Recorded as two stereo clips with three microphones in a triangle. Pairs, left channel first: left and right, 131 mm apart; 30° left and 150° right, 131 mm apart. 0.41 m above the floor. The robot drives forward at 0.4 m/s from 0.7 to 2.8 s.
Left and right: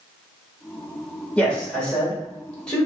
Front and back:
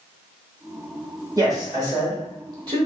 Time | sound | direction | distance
1.4 | a man speaking | 165° left | 1.3 m